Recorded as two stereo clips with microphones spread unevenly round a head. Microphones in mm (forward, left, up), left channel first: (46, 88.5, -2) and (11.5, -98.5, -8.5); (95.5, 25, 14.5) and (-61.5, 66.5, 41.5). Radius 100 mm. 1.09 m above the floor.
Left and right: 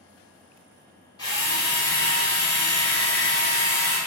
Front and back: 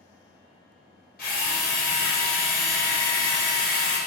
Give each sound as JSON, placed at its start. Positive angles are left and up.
{"t": 1.2, "sound": "a drill", "azimuth_deg": 15, "distance_m": 1.8}